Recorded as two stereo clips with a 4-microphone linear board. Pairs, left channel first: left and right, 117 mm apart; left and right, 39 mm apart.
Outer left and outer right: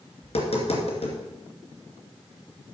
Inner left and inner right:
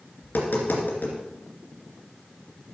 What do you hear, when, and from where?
0.2 s tapping: 65° left (ahead or behind), 2.5 m